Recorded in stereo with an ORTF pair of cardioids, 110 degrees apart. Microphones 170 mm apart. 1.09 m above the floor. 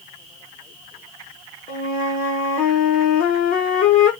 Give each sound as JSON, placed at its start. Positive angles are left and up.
{"t": 1.7, "sound": "a flute", "azimuth_deg": 60, "distance_m": 1.0}